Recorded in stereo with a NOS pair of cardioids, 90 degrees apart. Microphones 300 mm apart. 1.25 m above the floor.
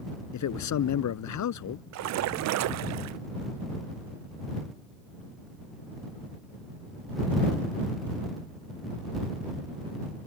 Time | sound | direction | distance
0.3 | a man speaking | 70° left | ?
1.9 | a splash | 65° right | ?